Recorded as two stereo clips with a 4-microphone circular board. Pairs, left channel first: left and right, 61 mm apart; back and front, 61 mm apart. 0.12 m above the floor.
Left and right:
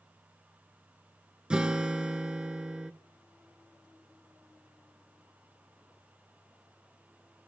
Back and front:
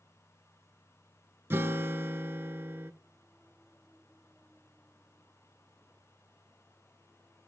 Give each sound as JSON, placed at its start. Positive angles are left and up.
{"t": 1.5, "sound": "a guitar", "azimuth_deg": -20, "distance_m": 0.5}